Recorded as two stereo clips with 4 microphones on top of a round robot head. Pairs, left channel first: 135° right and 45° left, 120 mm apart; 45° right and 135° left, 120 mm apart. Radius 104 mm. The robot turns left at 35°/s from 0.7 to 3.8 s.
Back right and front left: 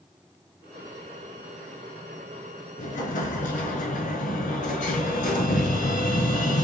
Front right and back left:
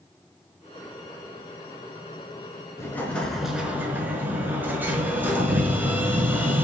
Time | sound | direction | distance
2.8 | an explosion | 110° right | 4.5 m